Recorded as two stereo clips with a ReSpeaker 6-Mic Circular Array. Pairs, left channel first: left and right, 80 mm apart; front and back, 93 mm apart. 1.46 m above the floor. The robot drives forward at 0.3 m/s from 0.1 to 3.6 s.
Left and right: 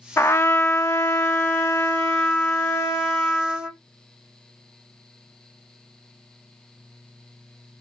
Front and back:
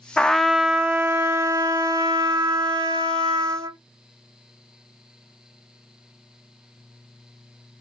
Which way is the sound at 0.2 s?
70° left.